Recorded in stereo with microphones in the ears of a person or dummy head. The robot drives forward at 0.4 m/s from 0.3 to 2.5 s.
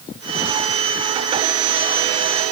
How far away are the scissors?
I don't hear scissors.